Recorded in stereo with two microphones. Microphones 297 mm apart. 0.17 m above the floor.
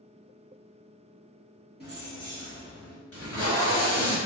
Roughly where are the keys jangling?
Left.